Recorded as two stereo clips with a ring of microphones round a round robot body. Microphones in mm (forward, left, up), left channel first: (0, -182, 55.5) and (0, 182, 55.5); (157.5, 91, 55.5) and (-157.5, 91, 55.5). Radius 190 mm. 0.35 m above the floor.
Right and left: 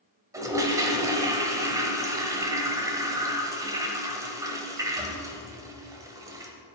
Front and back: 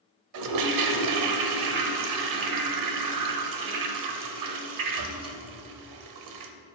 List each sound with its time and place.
0.3 s a toilet flushing: 170° left, 0.8 m